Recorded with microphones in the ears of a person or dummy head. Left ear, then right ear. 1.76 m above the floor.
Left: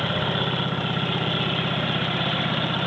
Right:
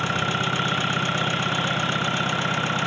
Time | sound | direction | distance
0.0 | an engine running | 60° right (ahead or behind) | ?